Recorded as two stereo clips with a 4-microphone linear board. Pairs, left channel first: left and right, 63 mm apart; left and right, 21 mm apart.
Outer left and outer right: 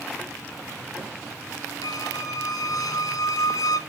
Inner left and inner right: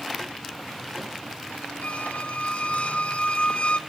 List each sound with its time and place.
1.8 s a squeak: 75° left (ahead or behind), 1.4 m